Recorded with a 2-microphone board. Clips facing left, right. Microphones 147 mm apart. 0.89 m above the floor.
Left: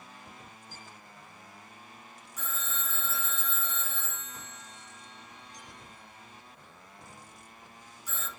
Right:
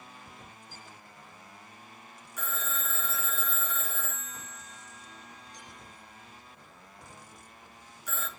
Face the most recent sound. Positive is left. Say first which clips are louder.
# right 3 dB
turn(degrees=-65)  # may be behind; listen again after turning